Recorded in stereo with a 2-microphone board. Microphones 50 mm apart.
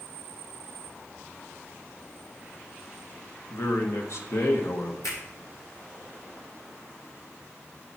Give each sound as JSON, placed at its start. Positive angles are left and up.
{"t": 3.5, "sound": "a man speaking", "side_deg": 65, "distance_m": 1.5}
{"t": 5.0, "sound": "a finger snap", "side_deg": 75, "distance_m": 5.0}